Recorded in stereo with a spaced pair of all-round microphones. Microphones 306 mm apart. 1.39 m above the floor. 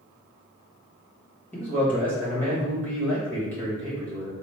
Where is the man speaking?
5° left (ahead or behind), 1.6 m.